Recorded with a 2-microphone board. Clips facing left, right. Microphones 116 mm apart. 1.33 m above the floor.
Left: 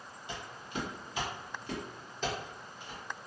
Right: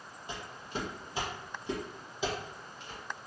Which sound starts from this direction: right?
Footsteps, at 0.3 s.